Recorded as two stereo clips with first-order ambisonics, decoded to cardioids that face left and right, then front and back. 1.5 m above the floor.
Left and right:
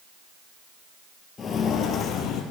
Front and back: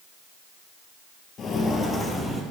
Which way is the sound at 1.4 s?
40° left.